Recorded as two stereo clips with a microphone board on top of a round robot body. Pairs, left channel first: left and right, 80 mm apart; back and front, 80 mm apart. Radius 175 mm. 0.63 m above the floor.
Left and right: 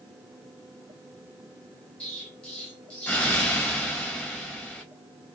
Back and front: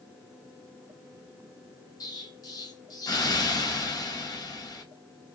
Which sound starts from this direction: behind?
An explosion, at 2.0 s.